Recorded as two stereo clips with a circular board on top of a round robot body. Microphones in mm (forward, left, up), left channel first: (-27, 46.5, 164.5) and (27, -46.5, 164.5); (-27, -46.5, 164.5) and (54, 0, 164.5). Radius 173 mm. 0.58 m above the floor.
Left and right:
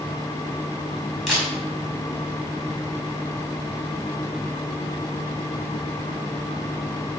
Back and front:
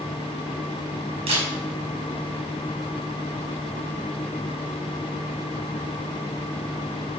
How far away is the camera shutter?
About 5.5 m.